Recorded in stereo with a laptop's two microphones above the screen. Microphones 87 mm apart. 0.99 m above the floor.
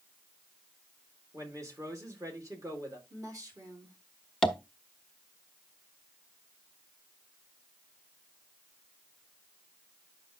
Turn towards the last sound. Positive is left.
turn(degrees=5)  # may be behind; listen again after turning